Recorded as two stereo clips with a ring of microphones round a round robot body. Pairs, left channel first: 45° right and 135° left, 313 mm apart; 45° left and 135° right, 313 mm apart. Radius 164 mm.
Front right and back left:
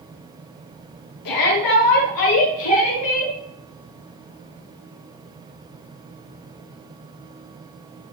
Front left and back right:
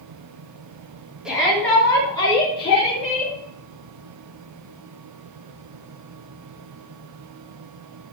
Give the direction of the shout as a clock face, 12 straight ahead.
2 o'clock.